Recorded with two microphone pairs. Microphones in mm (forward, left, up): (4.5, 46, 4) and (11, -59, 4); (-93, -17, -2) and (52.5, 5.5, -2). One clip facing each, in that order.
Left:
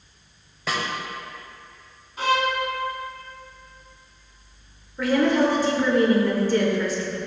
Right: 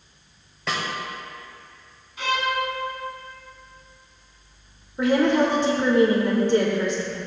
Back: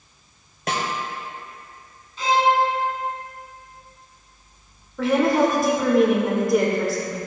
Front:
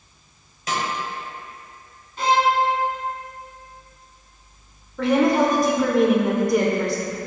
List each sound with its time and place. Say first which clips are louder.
0.7 s a snare drum: left 1 dB, even; straight behind, 0.9 m
2.2 s a violin: left 3 dB, even; 40° left, 0.6 m
5.0 s a woman speaking: right 1 dB, front 1 dB; 90° right, 0.8 m